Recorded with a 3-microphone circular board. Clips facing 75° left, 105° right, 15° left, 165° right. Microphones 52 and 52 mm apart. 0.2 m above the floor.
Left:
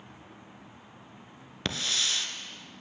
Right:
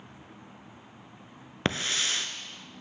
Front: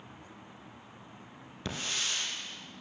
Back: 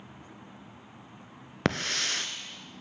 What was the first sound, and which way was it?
A hiss, 160° right.